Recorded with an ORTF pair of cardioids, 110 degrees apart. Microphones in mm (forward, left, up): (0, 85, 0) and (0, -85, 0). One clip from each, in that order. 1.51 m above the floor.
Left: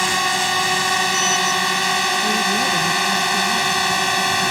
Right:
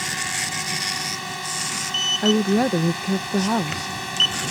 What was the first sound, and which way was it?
A drone, 70° left.